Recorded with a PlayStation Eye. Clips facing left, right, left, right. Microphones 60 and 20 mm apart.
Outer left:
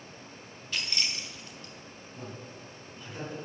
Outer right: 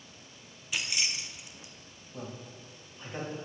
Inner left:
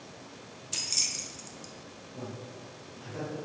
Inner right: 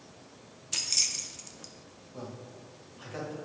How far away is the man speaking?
About 2 m.